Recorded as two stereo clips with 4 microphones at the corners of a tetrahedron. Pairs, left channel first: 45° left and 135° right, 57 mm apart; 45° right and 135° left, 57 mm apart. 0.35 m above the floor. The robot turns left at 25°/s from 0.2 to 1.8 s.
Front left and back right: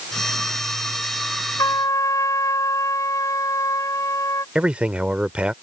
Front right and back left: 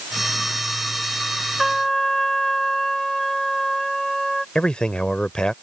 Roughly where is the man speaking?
Right.